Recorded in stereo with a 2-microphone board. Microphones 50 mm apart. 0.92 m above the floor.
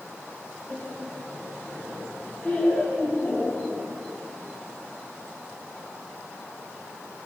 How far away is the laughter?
About 5.5 m.